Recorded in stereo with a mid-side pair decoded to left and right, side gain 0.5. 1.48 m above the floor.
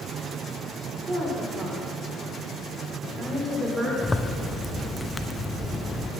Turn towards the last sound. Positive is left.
turn(degrees=10)